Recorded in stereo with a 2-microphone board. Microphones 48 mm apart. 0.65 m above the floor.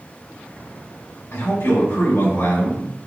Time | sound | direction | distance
1.3 | a man speaking | 70° left (ahead or behind) | 2.5 m